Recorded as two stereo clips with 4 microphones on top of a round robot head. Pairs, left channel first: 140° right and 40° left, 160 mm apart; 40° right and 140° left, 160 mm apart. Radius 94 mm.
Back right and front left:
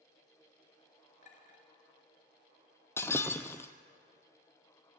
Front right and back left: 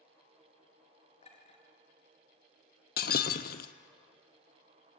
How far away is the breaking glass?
About 0.7 m.